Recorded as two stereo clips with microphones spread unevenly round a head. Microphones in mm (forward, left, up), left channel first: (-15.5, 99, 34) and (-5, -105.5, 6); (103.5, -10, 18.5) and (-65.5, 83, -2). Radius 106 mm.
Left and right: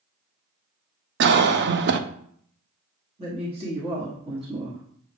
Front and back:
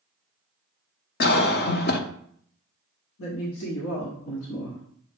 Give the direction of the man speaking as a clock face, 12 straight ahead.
1 o'clock.